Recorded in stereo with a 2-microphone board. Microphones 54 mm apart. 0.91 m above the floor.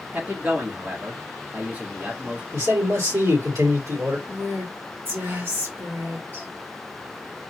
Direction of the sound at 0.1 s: 30° right (ahead or behind).